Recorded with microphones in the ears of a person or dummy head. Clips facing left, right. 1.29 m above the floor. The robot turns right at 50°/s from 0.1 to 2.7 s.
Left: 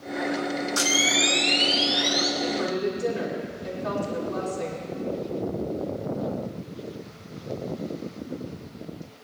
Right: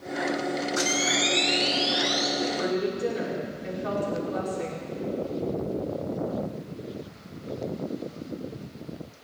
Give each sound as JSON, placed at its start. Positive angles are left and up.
{"t": 0.8, "sound": "a camera shutter", "azimuth_deg": 125, "distance_m": 1.3}
{"t": 2.4, "sound": "a woman speaking", "side_deg": -30, "distance_m": 3.0}